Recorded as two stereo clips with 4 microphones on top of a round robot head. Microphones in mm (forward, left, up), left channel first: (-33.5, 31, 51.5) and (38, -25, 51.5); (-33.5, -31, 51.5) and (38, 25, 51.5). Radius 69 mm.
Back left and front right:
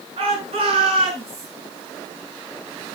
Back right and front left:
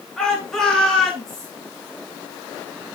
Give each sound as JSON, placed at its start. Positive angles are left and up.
{"t": 0.2, "sound": "a shout", "azimuth_deg": -60, "distance_m": 8.0}